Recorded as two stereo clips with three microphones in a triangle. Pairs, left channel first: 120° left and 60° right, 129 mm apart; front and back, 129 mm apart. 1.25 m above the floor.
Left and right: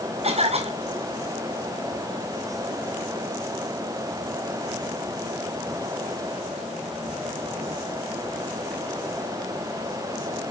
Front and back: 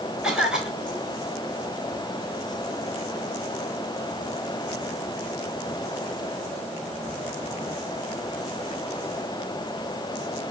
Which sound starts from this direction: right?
A cough, at 0.2 s.